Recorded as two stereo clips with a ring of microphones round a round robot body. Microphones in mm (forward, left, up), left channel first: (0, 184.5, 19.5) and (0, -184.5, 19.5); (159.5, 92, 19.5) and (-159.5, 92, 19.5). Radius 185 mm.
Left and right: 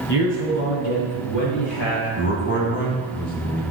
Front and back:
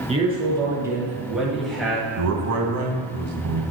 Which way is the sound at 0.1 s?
110° left.